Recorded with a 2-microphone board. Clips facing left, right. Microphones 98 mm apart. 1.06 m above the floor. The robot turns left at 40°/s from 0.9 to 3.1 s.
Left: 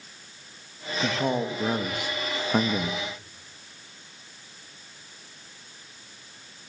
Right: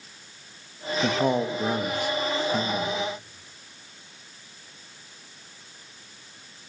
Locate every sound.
1.0 s a man speaking: 155° right, 1.6 m; by 3.0 s 125° left, 1.6 m